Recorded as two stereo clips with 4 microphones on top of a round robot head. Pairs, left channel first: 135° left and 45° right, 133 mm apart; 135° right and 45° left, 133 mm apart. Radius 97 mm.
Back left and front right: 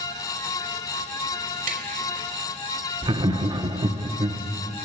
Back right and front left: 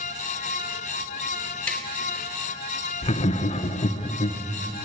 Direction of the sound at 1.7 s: 55° right.